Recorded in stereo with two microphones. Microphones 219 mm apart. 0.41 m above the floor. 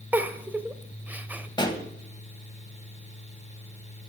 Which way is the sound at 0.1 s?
5° right (ahead or behind).